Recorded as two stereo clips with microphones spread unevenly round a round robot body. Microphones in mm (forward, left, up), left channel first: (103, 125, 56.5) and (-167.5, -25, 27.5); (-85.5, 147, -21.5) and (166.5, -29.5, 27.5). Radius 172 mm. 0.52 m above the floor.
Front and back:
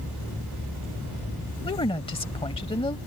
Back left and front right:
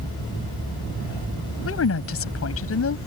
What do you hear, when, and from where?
1.6 s a woman speaking: 105° left